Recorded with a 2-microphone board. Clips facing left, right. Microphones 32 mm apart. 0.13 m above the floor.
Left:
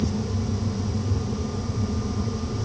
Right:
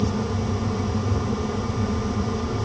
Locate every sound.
Only background noise.